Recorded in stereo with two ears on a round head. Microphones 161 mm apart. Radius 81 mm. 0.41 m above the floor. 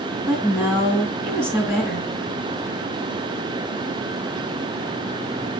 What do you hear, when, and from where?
0.3 s a woman speaking: centre (ahead or behind), 3.5 m